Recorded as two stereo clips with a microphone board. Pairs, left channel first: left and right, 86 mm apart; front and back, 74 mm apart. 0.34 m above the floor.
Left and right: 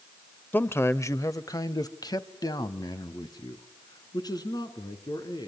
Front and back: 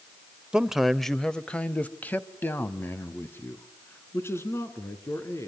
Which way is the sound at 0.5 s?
120° left.